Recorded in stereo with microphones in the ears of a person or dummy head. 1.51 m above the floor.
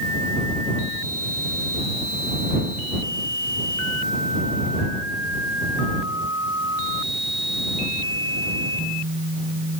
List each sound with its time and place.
Only background noise.